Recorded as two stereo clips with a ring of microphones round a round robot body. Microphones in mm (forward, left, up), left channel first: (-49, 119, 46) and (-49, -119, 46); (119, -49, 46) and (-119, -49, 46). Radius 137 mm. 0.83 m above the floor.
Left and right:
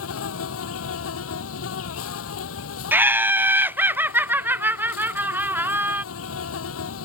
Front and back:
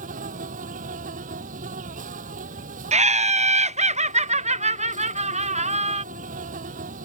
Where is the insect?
115° left.